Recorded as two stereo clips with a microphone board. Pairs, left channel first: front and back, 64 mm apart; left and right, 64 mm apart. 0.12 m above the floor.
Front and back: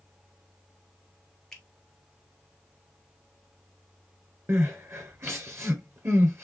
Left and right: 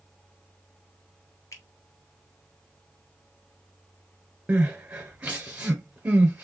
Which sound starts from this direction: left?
A finger snap, at 1.5 s.